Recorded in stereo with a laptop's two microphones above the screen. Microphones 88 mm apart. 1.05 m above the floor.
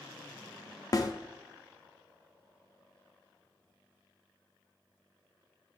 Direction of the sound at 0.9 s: 40° left (ahead or behind).